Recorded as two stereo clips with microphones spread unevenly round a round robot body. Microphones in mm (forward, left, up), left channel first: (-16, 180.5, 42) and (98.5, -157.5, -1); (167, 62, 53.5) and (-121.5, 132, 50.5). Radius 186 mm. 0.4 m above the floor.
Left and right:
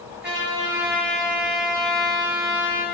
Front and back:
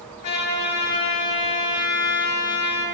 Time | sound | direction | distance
0.2 | a trumpet | 10° right | 4 m